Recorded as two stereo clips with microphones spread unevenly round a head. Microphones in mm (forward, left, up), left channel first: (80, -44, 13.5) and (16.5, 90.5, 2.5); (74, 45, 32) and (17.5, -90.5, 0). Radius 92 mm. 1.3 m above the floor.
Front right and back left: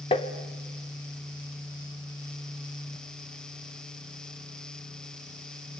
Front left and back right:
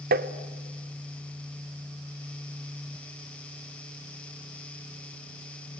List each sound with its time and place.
0.1 s tapping: 130° right, 1.3 m